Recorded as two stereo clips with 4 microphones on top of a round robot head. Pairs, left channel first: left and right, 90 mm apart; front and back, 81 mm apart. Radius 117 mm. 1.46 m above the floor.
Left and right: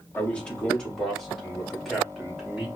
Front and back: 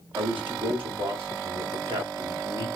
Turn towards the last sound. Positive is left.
turn(degrees=-175)